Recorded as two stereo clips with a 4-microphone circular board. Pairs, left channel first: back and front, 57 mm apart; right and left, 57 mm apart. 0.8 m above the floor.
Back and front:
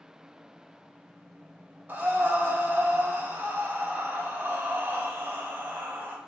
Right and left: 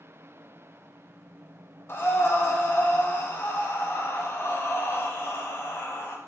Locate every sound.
1.9 s breathing: 50° right, 0.5 m